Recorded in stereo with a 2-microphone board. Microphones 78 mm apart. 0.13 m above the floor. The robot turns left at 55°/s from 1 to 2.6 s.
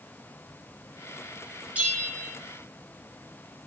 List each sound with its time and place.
1.8 s a bell: 30° right, 1.9 m; by 2.4 s 65° right, 1.9 m